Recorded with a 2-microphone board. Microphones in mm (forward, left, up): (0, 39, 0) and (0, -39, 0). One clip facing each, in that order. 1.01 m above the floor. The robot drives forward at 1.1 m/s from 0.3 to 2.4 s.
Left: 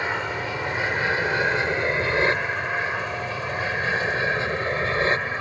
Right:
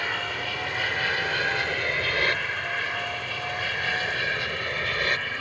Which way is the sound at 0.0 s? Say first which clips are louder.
Left 3 dB; 20° left (ahead or behind).